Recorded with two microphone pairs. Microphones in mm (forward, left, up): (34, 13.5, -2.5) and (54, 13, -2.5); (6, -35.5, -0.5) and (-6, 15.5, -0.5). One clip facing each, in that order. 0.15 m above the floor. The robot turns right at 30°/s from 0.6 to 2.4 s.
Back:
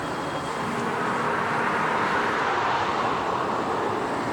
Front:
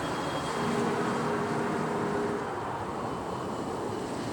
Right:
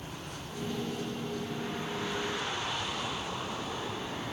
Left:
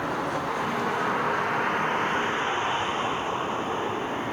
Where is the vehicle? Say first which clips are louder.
Back 3 dB, left 15 dB; 105° left; by 4.3 s 160° left.